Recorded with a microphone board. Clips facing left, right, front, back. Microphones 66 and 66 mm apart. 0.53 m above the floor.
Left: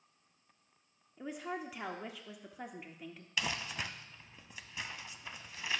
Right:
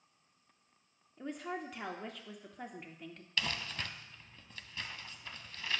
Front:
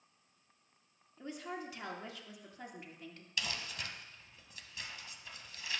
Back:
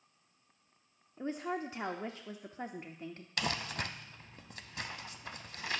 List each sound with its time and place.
1.2 s a woman speaking: 170° left, 0.8 m
3.4 s crumpling: 165° left, 0.5 m